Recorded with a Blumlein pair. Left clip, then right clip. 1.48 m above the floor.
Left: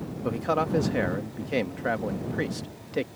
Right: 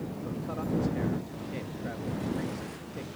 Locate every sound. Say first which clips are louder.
0.2 s a man speaking: left 12 dB; 55° left